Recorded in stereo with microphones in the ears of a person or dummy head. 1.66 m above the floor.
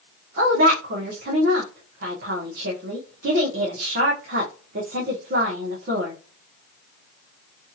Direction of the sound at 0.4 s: 55° right (ahead or behind).